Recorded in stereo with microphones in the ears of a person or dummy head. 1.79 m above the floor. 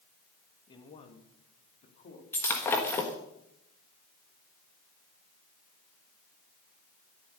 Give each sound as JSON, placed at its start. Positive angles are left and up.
{"t": 0.7, "sound": "a man speaking", "side_deg": 25, "distance_m": 2.5}
{"t": 2.3, "sound": "breaking glass", "side_deg": 10, "distance_m": 1.3}